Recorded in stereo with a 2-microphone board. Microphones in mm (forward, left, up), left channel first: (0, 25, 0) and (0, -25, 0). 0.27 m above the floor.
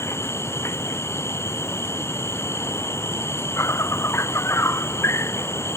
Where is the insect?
65° left (ahead or behind).